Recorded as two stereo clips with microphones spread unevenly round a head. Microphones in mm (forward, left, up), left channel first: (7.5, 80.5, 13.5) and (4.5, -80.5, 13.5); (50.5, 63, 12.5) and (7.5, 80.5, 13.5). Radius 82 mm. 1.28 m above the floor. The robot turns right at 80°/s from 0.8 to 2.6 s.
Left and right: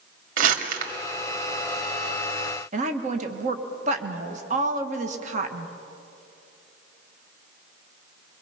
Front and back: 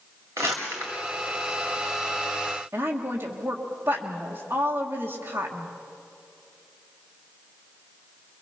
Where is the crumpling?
135° right, 1.7 m; by 0.9 s 125° right, 1.7 m.